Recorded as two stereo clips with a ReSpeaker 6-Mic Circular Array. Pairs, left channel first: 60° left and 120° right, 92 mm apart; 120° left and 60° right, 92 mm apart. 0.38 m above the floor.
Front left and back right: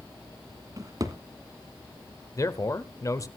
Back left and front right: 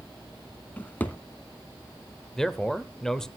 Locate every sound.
0.8 s a drawer: 170° right, 1.3 m
2.4 s a man speaking: 40° left, 1.0 m